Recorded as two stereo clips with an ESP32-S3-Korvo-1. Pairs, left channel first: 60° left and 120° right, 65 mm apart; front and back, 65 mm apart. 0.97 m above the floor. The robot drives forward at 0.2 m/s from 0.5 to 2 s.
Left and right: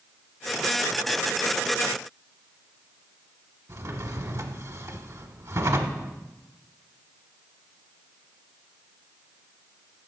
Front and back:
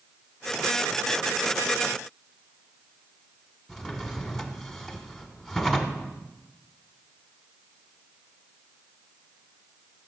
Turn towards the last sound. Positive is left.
turn(degrees=-95)